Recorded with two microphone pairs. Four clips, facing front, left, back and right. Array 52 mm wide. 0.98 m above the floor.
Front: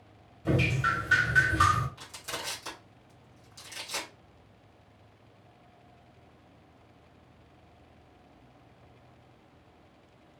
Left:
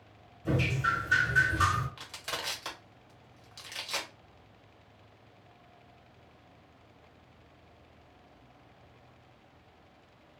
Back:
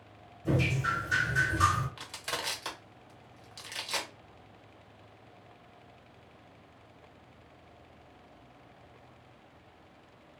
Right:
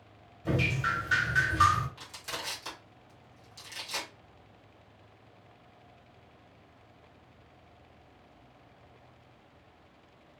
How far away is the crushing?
About 1.1 m.